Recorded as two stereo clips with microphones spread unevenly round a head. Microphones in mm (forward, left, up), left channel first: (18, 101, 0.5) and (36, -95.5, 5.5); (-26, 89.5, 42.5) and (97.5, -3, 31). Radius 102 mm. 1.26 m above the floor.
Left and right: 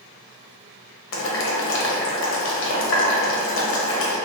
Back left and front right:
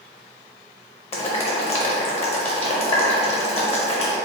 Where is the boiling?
100° left, 0.7 m.